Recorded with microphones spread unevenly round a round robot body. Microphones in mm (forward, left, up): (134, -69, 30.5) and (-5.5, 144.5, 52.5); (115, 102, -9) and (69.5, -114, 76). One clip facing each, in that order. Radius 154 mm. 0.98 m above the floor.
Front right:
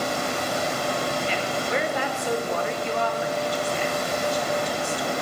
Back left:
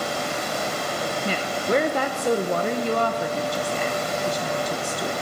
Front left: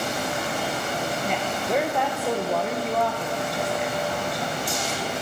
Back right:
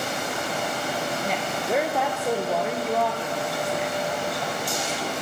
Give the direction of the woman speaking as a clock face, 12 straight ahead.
7 o'clock.